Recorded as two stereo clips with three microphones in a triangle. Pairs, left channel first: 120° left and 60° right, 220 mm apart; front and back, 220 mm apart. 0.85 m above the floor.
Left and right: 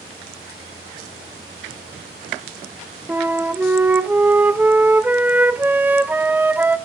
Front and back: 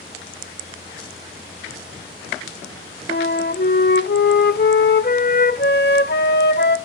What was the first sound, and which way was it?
A flute, 20° left.